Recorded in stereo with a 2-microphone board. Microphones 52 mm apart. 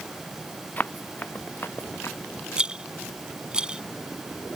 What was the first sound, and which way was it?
Running footsteps, 35° left (ahead or behind).